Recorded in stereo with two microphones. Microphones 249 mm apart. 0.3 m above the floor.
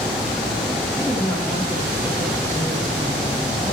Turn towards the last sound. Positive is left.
turn(degrees=-10)  # may be behind; listen again after turning